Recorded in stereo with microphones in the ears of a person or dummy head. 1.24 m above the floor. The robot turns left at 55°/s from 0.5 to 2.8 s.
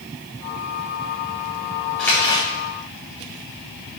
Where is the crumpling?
5° left (ahead or behind), 2 m; by 2.5 s 30° left (ahead or behind), 2 m.